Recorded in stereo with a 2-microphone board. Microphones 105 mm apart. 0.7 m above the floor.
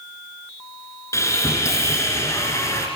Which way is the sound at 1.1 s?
25° left (ahead or behind).